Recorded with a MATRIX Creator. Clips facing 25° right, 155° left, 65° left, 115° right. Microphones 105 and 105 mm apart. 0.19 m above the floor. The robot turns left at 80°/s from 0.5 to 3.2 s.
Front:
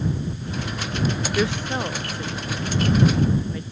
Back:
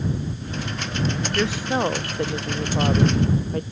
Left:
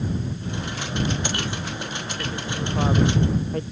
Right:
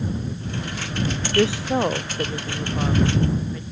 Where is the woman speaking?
100° right; by 3.6 s 110° left.